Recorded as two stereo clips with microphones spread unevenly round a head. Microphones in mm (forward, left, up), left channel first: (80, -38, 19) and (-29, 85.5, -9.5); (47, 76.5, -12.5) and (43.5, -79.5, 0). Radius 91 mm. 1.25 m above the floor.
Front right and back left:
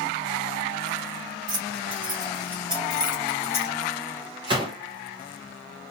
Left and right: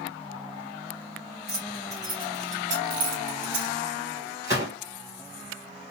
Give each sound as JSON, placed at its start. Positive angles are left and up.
{"t": 1.5, "sound": "keys jangling", "azimuth_deg": 180, "distance_m": 1.1}
{"t": 4.4, "sound": "a gunshot", "azimuth_deg": -165, "distance_m": 1.6}